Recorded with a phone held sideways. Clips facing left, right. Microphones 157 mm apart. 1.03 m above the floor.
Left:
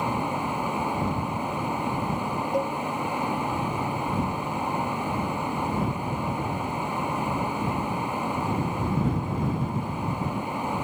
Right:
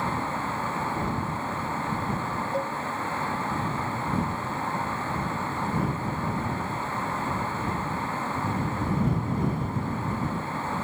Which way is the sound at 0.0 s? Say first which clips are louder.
Left 2 dB; 15° left (ahead or behind).